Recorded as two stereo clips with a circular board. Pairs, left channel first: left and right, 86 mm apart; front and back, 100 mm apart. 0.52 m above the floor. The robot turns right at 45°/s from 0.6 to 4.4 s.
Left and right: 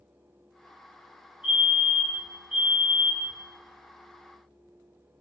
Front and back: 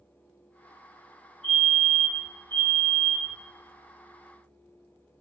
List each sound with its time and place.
1.4 s a fire alarm: 60° right, 1.6 m; by 3.4 s 25° left, 1.6 m